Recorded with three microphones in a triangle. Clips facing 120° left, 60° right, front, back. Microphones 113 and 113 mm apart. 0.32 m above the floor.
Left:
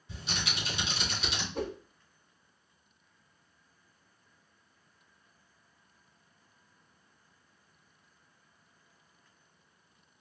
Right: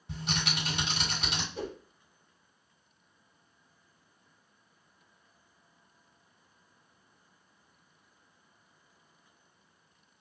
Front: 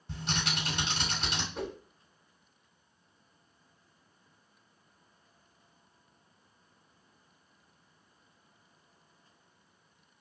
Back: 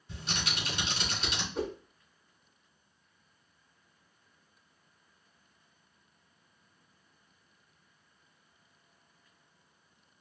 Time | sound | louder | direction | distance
0.1 | typing on a keyboard | right 4 dB, front 3 dB | 30° right | 3 m
1.6 | a whoosh | left 5 dB, back 5 dB | 90° left | 1.3 m